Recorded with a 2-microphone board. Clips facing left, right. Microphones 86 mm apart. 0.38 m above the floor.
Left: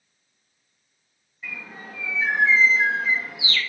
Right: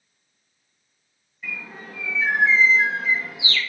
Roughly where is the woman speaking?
I don't hear a woman speaking.